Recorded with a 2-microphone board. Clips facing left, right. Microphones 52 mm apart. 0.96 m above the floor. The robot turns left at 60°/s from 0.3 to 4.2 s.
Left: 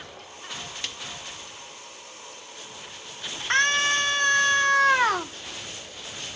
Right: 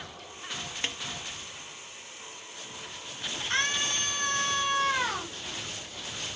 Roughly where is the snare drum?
Right.